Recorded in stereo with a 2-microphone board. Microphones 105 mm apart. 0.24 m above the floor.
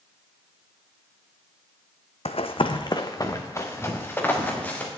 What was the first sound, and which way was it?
Running footsteps, 75° left (ahead or behind).